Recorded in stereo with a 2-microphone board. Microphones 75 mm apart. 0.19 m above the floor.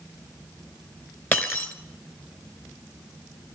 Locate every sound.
1.3 s breaking glass: 25° left (ahead or behind), 1.5 m